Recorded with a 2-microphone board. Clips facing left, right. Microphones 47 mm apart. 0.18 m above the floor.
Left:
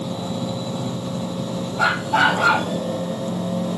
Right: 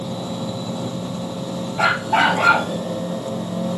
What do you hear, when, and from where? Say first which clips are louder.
1.8 s a dog barking: right 1 dB; 45° right (ahead or behind), 3.5 m